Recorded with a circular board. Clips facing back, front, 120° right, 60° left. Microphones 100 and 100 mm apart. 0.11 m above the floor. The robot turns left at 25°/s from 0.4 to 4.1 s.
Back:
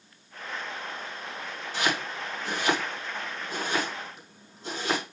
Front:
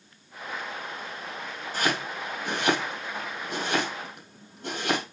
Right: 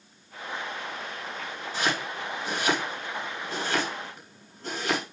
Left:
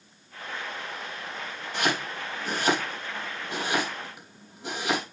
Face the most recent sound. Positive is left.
turn(degrees=-20)